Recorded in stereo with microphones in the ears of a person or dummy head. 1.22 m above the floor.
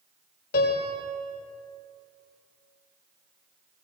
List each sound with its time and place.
0.5 s a piano: 55° left (ahead or behind), 4 m